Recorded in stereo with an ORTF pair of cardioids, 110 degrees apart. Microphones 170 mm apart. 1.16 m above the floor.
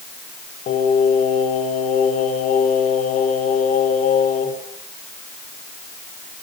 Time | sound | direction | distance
0.7 | singing | 55° left | 5 m